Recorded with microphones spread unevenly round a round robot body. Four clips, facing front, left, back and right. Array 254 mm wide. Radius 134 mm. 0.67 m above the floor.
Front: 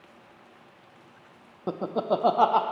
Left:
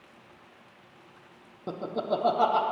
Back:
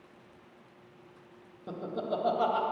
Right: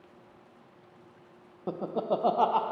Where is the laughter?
10° right, 0.6 m.